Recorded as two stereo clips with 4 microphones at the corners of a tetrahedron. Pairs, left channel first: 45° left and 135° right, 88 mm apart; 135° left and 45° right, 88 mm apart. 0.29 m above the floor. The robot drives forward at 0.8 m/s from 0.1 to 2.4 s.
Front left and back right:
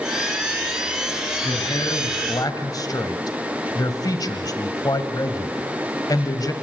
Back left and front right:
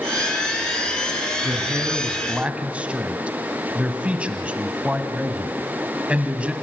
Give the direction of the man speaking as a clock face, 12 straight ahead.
12 o'clock.